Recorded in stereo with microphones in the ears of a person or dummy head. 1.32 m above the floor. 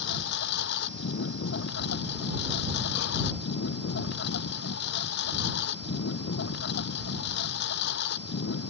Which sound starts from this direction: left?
A lawn mower, at 0.0 s.